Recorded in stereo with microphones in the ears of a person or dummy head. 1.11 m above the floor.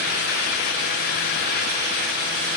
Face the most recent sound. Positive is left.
No sound to turn to.